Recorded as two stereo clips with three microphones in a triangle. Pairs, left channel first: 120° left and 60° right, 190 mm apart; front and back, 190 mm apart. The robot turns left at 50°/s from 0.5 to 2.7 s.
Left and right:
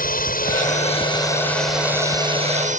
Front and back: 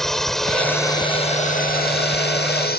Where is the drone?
90° left; by 2.8 s 20° right.